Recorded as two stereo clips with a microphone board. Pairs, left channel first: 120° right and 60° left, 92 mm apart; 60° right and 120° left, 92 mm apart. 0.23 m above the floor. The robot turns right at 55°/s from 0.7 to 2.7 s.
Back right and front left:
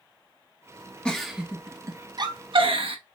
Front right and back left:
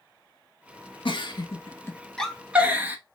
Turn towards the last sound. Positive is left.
turn(degrees=50)